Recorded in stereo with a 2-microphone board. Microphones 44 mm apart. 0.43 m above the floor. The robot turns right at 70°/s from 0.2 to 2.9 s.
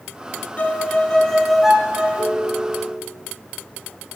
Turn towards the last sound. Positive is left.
turn(degrees=145)